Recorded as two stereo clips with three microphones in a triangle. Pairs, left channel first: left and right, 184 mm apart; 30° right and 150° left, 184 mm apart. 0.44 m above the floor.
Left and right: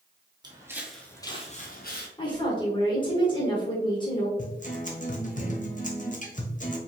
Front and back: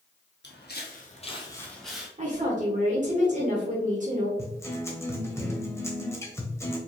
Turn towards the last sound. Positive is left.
turn(degrees=45)